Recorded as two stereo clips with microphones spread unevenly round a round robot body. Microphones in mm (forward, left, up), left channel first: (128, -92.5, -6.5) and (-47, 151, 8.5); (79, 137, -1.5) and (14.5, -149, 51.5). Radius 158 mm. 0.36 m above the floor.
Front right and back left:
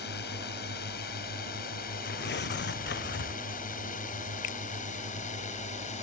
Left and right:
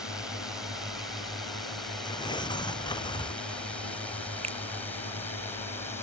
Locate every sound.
0.0 s a drone: 5° right; by 6.0 s 5° left
2.0 s tearing paper: straight ahead
4.4 s a finger snap: 35° right